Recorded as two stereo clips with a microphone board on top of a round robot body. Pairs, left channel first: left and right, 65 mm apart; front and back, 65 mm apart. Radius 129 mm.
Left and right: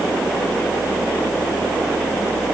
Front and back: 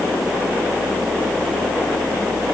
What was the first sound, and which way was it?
Only background noise.